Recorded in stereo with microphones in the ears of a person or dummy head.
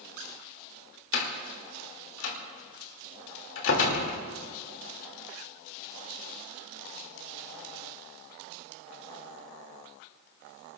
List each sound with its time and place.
1.1 s a door slam: 75° left (ahead or behind), 2.5 m